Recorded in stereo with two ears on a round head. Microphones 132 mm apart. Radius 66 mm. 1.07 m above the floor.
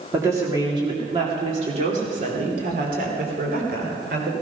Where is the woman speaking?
20° right (ahead or behind), 2 m; by 4.3 s 70° right (ahead or behind), 3.5 m.